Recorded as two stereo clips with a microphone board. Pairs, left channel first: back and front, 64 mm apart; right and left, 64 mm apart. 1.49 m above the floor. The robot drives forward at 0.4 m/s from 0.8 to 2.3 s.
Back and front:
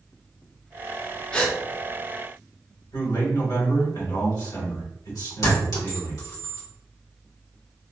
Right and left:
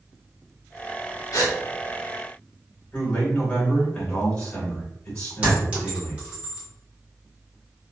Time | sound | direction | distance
1.3 | a gasp | 110° right | 0.6 m
2.9 | a man speaking | 160° right | 1.8 m
5.4 | a clink | 160° left | 1.4 m